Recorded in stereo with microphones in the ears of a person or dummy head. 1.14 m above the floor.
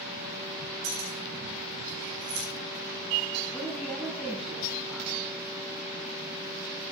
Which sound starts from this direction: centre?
A woman speaking, at 3.5 s.